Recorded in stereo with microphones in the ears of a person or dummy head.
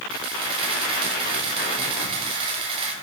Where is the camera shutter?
30° right (ahead or behind), 7 m.